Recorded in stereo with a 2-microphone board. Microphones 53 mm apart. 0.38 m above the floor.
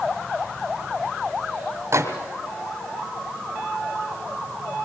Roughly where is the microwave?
Right.